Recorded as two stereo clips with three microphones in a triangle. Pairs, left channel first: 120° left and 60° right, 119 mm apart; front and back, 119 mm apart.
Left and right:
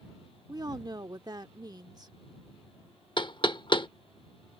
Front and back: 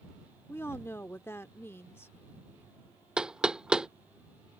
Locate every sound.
0.5 s a woman speaking: 50° right
3.2 s knocking: 100° left